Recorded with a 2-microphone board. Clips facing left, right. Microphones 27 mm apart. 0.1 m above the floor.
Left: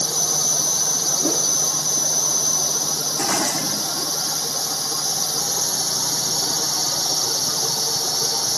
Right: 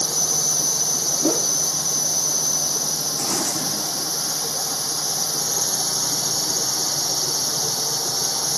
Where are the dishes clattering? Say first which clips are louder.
Left 4 dB; 65° left (ahead or behind).